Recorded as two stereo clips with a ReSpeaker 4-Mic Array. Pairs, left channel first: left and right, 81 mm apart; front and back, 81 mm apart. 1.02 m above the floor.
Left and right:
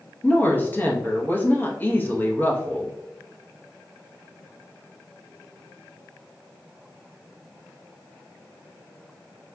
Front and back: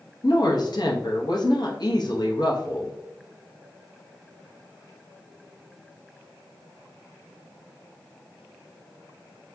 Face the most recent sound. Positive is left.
turn(degrees=25)